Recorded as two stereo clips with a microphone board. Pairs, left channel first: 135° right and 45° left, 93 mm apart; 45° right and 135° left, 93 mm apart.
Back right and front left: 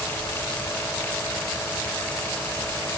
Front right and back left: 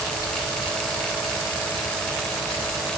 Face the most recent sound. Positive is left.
No sound to turn to.